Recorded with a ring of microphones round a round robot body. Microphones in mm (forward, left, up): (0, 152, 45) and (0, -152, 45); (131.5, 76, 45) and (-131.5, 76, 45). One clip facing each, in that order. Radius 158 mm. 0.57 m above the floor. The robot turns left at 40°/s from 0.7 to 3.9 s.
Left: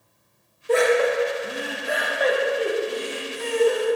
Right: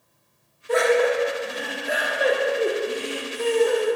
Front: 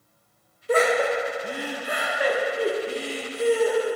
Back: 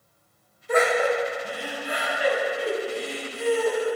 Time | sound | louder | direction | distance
0.7 | laughter | even, front 1 dB | 45° left | 1.1 m